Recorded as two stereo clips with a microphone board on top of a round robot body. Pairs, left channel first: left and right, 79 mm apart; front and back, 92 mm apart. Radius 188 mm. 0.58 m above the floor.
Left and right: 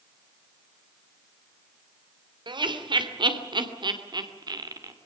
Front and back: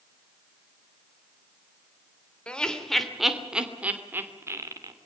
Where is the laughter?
80° right, 3 m; by 4.9 s 130° right, 3 m.